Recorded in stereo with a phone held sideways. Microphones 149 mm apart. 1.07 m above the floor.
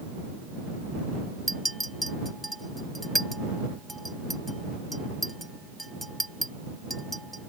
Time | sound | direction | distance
1.5 | a clink | centre (ahead or behind) | ?